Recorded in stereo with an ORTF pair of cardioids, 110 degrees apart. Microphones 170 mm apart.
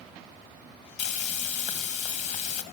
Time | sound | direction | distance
1.0 | frying | 50° left | 1.6 m